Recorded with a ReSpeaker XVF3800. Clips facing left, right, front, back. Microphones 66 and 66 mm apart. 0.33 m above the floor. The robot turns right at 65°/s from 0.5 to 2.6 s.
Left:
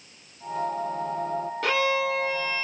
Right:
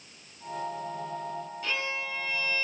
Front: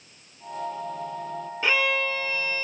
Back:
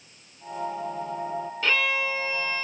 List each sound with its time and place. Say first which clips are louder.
1.6 s a violin: left 11 dB, front 2 dB; 75° left, 1.3 m; by 2.6 s 135° left, 1.3 m